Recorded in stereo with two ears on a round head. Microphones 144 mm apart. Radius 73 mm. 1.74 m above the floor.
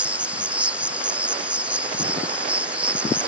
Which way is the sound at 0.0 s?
10° right (ahead or behind).